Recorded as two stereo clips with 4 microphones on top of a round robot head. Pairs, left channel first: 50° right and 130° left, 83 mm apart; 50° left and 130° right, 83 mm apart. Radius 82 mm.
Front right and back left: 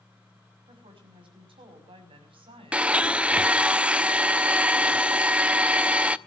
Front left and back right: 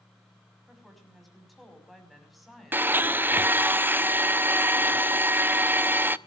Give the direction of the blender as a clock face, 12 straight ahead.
6 o'clock.